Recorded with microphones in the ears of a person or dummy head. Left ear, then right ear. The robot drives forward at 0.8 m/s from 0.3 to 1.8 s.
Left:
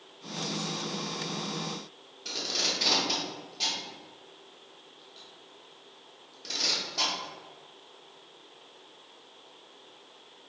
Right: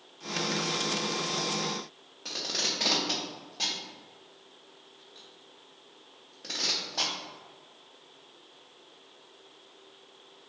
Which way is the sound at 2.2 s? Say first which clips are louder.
Left 1 dB; 40° right (ahead or behind).